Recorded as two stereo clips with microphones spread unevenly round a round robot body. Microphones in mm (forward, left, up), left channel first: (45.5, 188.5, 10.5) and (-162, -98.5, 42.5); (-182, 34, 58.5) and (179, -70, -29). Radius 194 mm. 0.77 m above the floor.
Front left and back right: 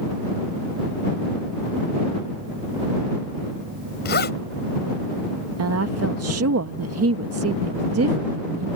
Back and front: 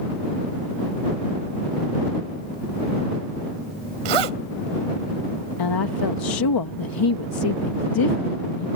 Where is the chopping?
I don't hear chopping.